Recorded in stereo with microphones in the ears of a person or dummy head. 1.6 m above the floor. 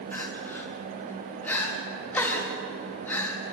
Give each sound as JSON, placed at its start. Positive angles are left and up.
{"t": 0.1, "sound": "crying", "side_deg": 15, "distance_m": 3.5}